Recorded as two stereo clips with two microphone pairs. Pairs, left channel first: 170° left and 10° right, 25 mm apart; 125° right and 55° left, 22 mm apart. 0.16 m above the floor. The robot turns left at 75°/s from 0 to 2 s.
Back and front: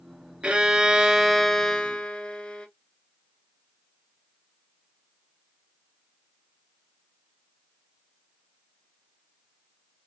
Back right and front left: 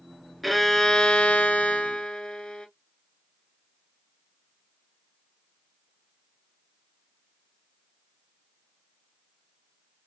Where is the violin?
45° right, 1.1 m; by 2.7 s 160° right, 1.1 m.